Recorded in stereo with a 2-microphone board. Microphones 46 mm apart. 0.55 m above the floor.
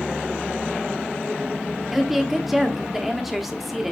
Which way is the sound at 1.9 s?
5° right (ahead or behind).